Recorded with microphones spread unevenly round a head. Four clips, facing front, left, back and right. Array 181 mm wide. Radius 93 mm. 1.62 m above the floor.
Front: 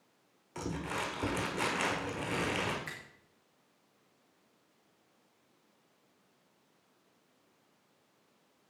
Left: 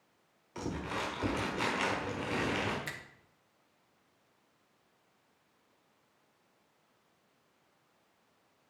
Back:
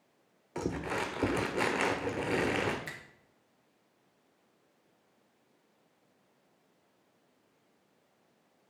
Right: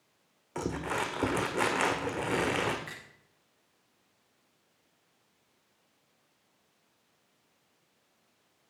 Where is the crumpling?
125° right, 1.3 m.